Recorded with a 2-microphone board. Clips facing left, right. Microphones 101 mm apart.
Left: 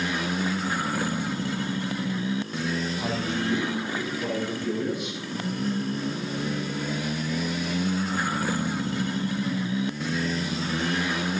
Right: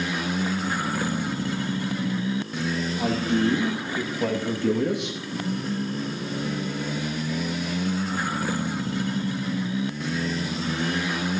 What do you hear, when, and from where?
3.0 s a man speaking: 55° right (ahead or behind), 2.5 m; by 5.2 s 75° right (ahead or behind), 2 m